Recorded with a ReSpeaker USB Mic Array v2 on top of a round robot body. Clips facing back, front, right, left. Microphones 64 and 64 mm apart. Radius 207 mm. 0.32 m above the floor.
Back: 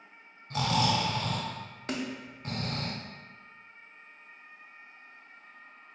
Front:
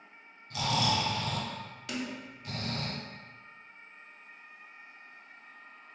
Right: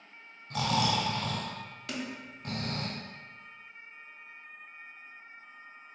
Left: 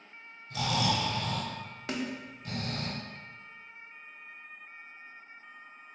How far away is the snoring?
About 0.7 m.